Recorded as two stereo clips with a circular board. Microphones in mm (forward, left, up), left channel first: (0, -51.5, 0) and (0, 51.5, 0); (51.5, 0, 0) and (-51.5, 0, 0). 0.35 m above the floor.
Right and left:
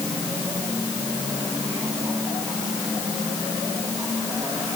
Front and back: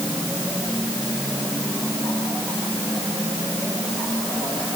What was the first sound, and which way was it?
Only background noise.